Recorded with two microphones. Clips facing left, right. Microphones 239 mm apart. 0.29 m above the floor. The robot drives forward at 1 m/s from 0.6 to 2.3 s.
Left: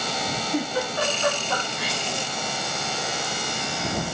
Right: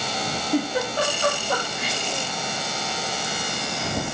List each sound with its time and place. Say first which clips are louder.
0.5 s a giggle: right 3 dB; 40° right (ahead or behind), 8.5 m; by 2.0 s 50° right (ahead or behind), 7.5 m